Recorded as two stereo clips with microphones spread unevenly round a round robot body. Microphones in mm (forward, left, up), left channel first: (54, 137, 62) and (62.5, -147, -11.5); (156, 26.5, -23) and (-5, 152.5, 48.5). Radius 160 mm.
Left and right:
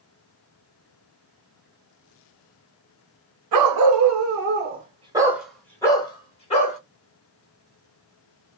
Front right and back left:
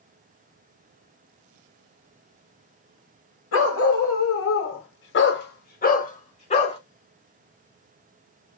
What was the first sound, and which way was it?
A dog barking, 75° right.